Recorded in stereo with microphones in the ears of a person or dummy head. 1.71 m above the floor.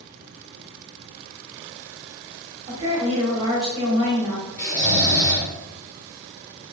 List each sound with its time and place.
2.7 s a woman speaking: 30° right (ahead or behind), 1.4 m
4.6 s snoring: 15° left (ahead or behind), 1.8 m